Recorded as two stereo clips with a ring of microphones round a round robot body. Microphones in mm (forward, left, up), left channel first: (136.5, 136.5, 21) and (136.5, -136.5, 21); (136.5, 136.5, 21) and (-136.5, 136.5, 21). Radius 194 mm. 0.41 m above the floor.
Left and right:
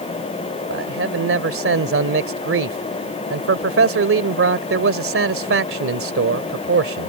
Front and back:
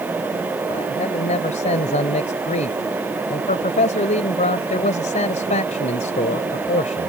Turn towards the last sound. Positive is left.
turn(degrees=-65)